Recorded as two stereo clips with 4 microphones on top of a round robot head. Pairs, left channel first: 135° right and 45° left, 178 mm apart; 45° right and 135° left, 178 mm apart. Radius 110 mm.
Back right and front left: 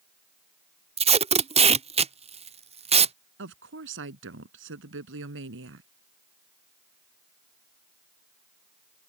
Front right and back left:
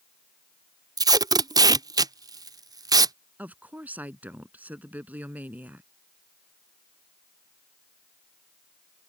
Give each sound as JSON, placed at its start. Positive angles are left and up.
{"t": 1.0, "sound": "tape being pulled", "azimuth_deg": 75}
{"t": 3.4, "sound": "a woman speaking", "azimuth_deg": 55}